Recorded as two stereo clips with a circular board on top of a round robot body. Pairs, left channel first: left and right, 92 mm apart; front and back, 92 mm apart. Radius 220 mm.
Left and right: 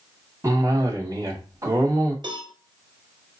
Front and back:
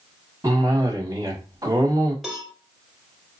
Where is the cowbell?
95° right, 1.7 m.